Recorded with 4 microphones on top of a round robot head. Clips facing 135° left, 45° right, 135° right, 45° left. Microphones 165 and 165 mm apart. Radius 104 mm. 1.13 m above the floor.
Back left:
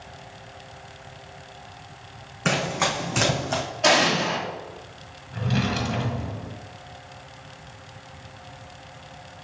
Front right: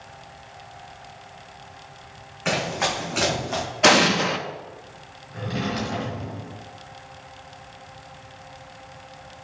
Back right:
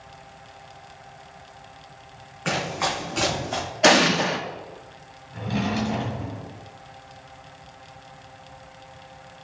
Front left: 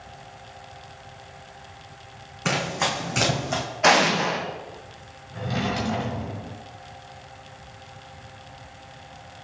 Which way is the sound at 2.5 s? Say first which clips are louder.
Even, even; 90° left.